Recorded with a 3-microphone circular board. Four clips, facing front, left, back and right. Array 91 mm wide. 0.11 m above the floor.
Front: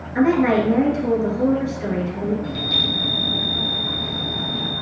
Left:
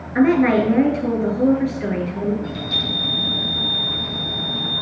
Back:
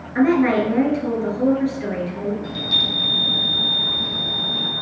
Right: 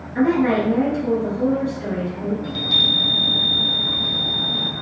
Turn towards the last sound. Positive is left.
turn(degrees=-125)